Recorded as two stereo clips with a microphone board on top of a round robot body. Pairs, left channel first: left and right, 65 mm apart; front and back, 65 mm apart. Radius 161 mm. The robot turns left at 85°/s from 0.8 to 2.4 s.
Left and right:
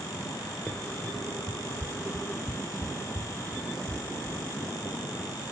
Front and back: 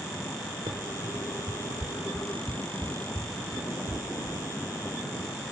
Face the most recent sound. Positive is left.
turn(degrees=110)